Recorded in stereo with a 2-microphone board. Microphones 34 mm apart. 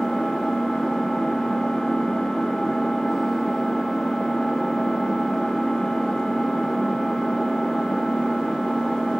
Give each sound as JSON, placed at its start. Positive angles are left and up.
{"t": 0.0, "sound": "an engine running", "side_deg": 10, "distance_m": 0.8}